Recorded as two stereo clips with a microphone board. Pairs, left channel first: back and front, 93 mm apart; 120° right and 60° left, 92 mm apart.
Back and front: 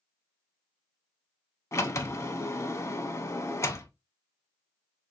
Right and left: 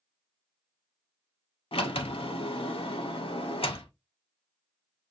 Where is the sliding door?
125° right, 0.5 m.